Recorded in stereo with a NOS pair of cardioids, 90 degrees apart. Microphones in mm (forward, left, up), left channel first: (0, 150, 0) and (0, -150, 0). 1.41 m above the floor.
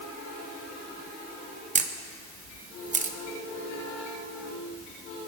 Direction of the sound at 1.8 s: 25° right.